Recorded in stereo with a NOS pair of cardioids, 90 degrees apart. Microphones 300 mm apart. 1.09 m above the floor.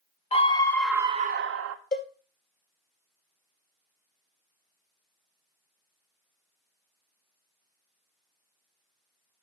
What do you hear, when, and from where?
0.3 s a scream: 20° left, 0.8 m; by 1.8 s 65° right, 0.6 m
1.9 s a cowbell: 35° left, 1.9 m